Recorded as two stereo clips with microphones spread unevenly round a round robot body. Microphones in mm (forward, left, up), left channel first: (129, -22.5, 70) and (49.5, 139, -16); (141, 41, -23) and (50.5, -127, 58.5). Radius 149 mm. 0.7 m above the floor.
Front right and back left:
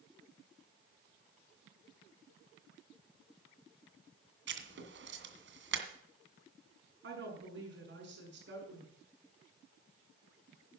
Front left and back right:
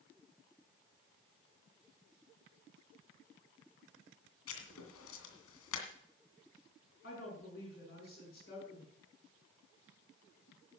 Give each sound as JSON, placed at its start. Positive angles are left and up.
{"t": 4.5, "sound": "writing", "azimuth_deg": 95, "distance_m": 2.0}
{"t": 7.0, "sound": "a woman speaking", "azimuth_deg": 115, "distance_m": 7.0}